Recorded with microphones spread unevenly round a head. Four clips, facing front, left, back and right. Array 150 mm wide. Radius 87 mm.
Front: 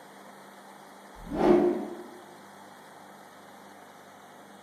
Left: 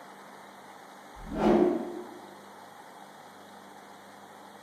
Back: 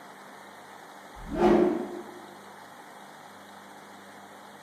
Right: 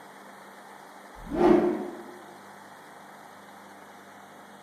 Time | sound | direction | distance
1.1 | a whoosh | 5° right | 1.8 m